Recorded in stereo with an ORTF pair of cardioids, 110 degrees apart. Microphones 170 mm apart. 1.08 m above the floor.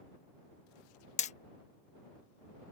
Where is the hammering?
45° left.